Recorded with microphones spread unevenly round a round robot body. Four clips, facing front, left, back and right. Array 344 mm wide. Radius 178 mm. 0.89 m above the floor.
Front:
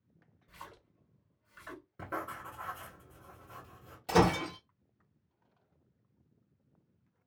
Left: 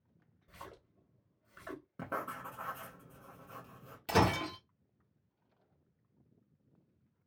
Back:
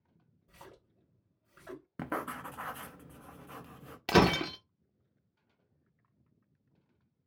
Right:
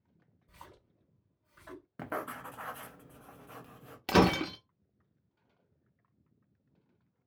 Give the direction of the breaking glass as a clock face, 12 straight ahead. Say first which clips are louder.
Right 4 dB, back 1 dB; 4 o'clock.